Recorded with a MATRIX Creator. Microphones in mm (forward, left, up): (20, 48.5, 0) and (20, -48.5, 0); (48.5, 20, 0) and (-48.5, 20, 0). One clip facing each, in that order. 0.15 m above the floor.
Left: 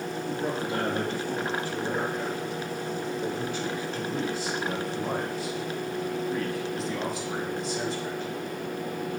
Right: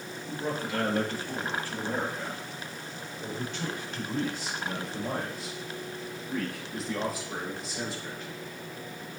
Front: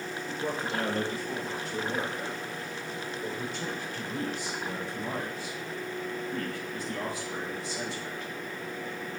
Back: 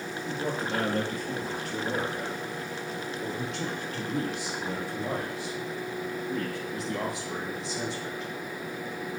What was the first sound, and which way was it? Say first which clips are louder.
A man speaking: left 2 dB, back 2 dB; 150° left.